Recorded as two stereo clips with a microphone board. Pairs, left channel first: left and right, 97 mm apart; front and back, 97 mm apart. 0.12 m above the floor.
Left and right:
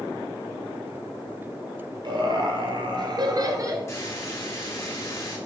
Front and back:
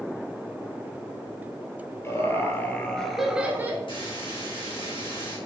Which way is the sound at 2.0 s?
60° right.